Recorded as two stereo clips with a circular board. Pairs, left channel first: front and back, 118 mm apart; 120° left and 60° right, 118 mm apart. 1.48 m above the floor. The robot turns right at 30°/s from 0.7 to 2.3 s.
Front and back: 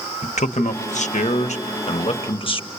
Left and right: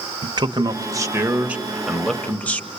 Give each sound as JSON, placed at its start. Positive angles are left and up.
{"t": 0.2, "sound": "a man speaking", "azimuth_deg": -5, "distance_m": 1.1}